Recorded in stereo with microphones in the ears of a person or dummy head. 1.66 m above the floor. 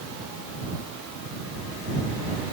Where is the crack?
I don't hear a crack.